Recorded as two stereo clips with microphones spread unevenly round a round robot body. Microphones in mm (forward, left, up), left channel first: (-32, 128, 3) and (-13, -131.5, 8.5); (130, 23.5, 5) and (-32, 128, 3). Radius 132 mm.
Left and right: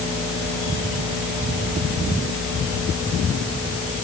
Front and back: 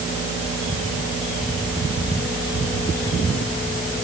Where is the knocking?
No knocking in this recording.